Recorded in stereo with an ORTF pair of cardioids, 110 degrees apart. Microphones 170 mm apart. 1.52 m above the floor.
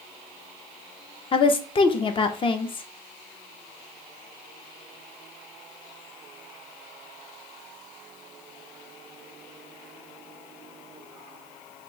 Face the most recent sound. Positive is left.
turn(degrees=30)